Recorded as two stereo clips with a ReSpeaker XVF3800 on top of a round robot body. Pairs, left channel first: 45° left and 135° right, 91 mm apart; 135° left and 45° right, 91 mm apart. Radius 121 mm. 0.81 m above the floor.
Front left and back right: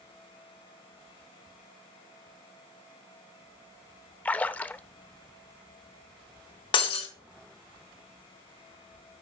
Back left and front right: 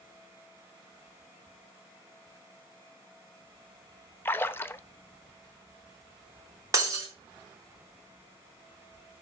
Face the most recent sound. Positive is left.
turn(degrees=10)